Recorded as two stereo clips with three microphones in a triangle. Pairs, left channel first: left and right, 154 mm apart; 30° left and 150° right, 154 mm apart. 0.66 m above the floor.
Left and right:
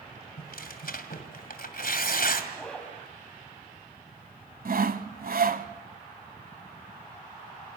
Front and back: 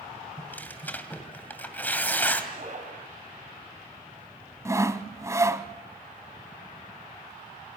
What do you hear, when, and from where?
0.4 s tearing paper: 110° left, 2.5 m
2.5 s a zipper: 175° left, 5.5 m
4.7 s sawing: 80° right, 1.1 m